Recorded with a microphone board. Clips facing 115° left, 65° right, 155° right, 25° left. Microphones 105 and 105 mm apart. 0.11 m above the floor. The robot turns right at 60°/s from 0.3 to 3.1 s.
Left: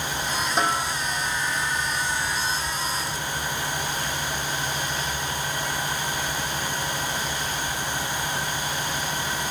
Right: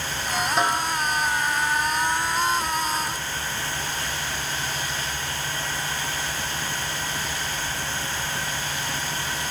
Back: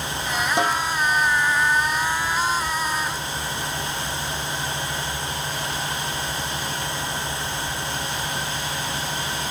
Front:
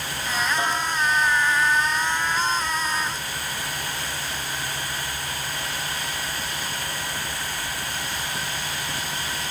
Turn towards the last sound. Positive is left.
turn(degrees=-5)